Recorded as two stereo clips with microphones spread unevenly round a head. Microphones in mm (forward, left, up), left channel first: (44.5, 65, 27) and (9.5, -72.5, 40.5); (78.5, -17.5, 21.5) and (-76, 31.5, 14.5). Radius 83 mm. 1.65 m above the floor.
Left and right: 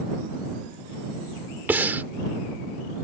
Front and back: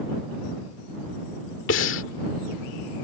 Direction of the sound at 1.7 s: 30° right.